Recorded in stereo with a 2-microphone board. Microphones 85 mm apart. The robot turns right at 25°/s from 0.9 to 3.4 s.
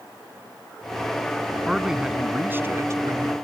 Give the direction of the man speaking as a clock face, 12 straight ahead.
6 o'clock.